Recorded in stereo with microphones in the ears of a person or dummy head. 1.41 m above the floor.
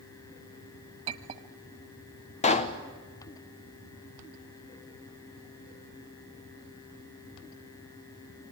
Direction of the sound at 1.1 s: 35° right (ahead or behind).